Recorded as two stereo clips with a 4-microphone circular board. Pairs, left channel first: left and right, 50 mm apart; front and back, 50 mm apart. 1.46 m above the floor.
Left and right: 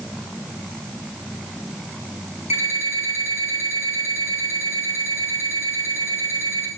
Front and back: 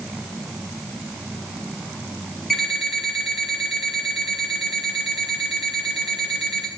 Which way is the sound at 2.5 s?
85° right.